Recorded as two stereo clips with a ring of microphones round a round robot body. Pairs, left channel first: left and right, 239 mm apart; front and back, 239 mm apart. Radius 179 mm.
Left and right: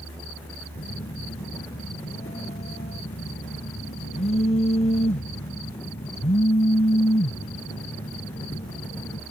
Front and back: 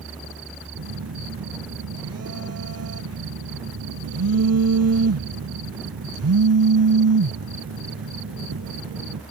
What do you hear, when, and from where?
0.8 s a phone buzzing: 165° left